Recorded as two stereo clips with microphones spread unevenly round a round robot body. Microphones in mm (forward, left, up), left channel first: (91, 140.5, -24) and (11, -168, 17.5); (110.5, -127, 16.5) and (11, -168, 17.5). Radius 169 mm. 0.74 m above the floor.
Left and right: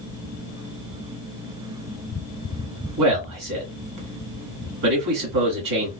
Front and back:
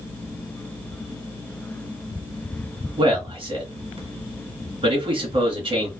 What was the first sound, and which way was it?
A man speaking, 130° right.